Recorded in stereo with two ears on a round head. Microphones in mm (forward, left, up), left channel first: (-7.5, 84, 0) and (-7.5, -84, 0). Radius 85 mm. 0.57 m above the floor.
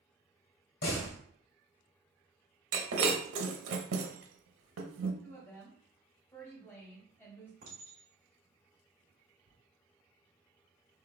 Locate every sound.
0.8 s a door slam: 55° left (ahead or behind), 1.5 m
2.7 s breaking glass: 75° right (ahead or behind), 0.9 m
5.2 s a woman speaking: 15° left (ahead or behind), 2 m
7.6 s a clink: 65° right (ahead or behind), 2.5 m